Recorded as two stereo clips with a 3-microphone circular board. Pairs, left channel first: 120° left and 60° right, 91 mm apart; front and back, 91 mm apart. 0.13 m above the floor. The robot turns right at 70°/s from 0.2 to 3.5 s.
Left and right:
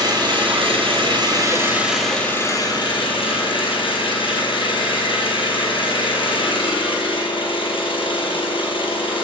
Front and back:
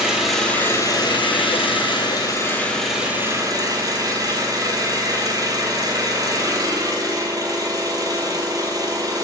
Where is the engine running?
95° right, 2.5 m; by 9.2 s 135° left, 2.5 m.